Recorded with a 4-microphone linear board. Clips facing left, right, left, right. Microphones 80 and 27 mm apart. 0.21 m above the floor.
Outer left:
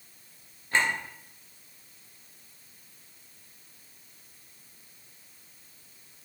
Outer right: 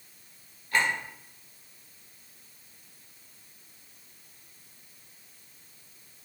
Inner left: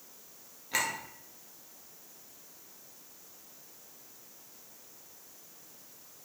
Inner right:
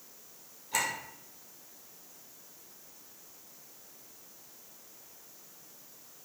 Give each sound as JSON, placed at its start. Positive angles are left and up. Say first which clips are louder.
{"t": 0.7, "sound": "a clink", "louder": "even, even", "side_deg": 25, "distance_m": 2.5}